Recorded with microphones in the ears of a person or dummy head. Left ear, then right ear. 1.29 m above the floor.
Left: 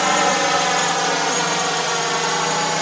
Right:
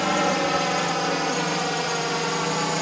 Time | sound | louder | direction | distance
0.0 | a drone | left 5 dB | 40° left (ahead or behind) | ?